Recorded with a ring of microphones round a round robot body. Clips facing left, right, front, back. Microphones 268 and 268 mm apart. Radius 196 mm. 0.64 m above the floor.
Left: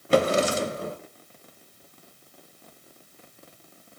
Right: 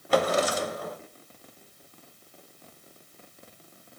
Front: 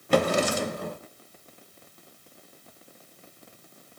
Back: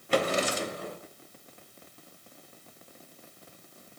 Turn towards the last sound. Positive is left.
turn(degrees=30)